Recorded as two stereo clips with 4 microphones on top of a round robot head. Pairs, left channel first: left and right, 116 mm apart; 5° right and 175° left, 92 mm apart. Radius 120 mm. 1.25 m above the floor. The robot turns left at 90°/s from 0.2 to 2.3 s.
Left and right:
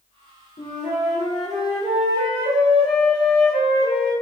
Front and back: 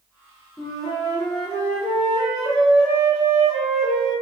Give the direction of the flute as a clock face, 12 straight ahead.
10 o'clock.